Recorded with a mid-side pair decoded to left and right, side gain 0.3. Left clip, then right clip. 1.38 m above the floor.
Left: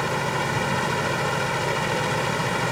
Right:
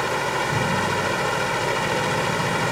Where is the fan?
20° right.